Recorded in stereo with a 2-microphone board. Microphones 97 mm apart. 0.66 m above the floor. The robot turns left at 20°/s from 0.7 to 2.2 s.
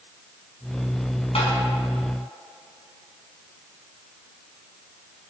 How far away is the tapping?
About 6 m.